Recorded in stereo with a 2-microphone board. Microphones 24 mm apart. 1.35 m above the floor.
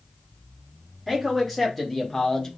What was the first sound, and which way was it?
A man speaking, 5° left (ahead or behind).